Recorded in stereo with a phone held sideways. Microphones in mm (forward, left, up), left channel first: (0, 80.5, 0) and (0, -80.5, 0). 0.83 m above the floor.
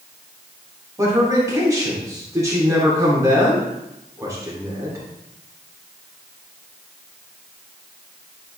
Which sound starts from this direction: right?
A man speaking, at 1.0 s.